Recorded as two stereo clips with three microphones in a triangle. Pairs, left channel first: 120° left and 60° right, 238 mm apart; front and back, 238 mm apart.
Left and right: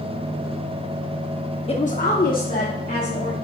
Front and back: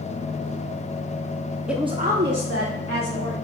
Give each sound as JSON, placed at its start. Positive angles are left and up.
{"t": 1.7, "sound": "a woman speaking", "azimuth_deg": 95, "distance_m": 0.6}